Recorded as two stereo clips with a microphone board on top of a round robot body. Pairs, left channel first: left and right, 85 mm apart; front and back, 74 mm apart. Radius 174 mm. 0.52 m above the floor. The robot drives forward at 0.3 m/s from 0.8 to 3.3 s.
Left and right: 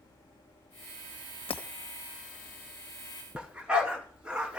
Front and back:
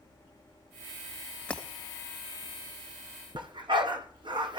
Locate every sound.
1.5 s breaking glass: 75° left, 1.4 m; by 1.6 s 80° left, 1.4 m
3.4 s a dog barking: 170° right, 2.5 m